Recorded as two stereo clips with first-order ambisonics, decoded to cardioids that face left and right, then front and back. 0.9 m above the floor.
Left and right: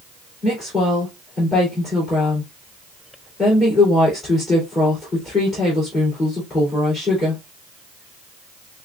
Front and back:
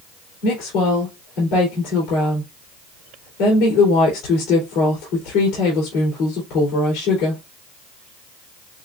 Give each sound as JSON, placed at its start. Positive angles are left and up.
{"t": 0.4, "sound": "a woman speaking", "azimuth_deg": 15, "distance_m": 2.5}